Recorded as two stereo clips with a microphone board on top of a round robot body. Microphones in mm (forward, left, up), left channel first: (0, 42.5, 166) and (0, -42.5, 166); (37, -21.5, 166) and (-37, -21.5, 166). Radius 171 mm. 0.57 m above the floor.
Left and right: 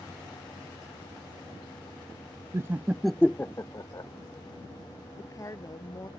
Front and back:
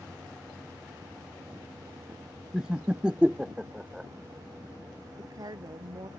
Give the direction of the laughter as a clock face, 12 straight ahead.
4 o'clock.